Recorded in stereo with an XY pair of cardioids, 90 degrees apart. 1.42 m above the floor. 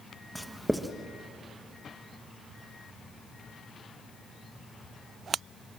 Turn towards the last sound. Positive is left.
turn(degrees=-5)